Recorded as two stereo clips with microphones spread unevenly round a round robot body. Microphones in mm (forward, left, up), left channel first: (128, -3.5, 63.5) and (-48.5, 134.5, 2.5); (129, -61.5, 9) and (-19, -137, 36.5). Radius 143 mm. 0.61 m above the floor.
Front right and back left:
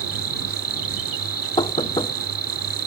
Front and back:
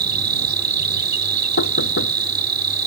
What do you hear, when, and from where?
0.0 s an insect: 135° right
1.6 s knocking: 30° left